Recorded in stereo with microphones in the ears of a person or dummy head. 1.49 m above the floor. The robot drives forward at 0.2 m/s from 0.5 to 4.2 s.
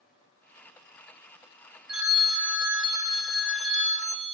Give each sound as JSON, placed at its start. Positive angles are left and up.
{"t": 1.9, "sound": "a phone ringing", "side_deg": -10, "distance_m": 1.0}